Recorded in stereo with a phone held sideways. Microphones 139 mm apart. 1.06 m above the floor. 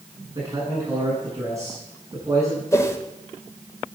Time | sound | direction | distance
0.3 | a man speaking | 25° right (ahead or behind) | 9.5 m
2.7 | a whoosh | 20° left (ahead or behind) | 1.9 m